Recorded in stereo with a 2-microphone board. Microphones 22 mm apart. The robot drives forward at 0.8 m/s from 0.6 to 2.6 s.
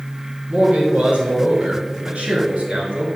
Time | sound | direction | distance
0.5 | a man speaking | 70° right (ahead or behind) | 3 m